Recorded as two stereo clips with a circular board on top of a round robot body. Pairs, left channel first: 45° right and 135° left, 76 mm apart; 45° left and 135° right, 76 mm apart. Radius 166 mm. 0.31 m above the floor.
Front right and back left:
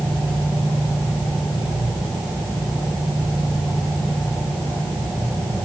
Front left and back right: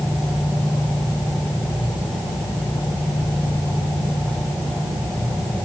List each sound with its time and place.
Only background noise.